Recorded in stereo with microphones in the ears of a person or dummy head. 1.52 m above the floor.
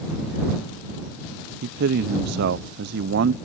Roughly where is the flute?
I don't hear a flute.